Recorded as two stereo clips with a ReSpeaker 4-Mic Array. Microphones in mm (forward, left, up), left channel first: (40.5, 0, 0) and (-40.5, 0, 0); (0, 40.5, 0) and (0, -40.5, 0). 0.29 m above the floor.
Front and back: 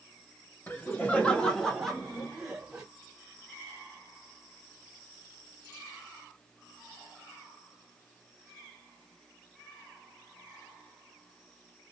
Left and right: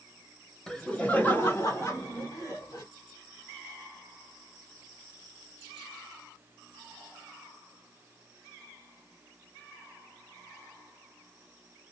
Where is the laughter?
10° left, 1.0 m; by 2.8 s 105° left, 1.5 m.